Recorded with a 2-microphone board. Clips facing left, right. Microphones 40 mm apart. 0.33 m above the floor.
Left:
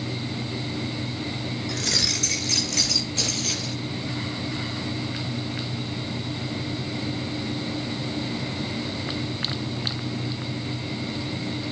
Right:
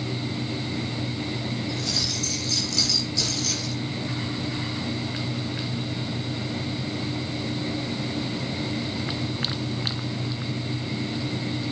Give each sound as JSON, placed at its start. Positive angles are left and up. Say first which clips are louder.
{"t": 1.7, "sound": "keys jangling", "louder": "left 2 dB", "side_deg": 65, "distance_m": 3.0}